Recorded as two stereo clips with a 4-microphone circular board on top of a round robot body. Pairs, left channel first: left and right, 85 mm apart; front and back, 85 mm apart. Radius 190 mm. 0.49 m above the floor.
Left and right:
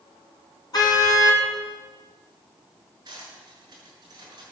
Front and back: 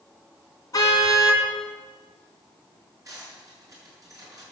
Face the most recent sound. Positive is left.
turn(degrees=-130)